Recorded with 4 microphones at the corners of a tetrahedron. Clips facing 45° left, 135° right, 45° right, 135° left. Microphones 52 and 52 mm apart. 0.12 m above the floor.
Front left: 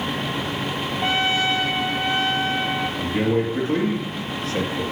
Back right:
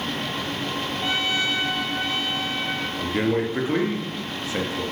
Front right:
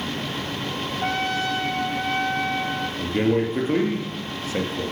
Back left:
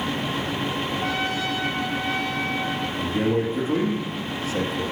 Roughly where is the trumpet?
Ahead.